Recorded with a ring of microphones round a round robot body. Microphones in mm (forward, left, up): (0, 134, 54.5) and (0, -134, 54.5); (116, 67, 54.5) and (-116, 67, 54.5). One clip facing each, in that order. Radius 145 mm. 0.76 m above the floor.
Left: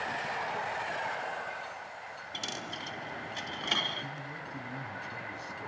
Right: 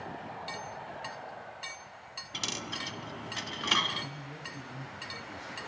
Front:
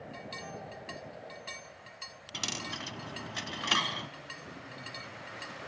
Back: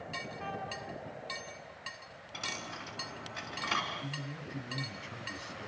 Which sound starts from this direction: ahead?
A dropped coin, at 2.3 s.